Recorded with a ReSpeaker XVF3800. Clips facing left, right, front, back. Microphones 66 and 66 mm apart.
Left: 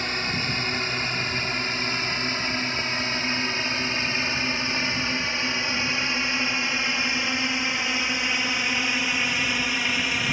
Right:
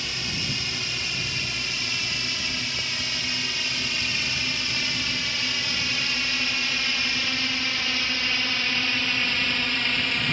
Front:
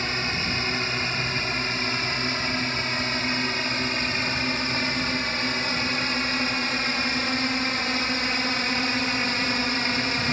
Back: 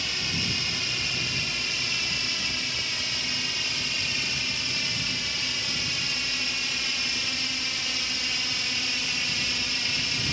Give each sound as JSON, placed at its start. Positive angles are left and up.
{"t": 0.0, "sound": "a drone", "azimuth_deg": 45}